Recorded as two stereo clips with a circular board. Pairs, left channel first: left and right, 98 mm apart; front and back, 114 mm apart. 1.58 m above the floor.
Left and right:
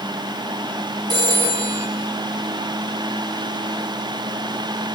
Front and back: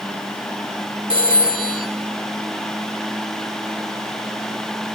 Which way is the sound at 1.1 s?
135° right.